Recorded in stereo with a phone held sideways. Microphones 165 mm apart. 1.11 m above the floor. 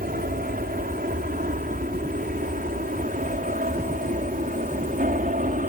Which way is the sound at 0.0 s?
60° right (ahead or behind).